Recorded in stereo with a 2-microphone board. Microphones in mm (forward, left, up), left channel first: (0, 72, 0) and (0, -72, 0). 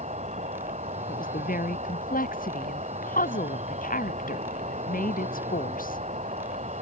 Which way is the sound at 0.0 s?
55° right (ahead or behind).